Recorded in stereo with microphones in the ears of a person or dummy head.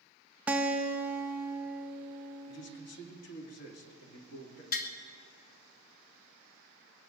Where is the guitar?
5° right (ahead or behind), 0.6 m.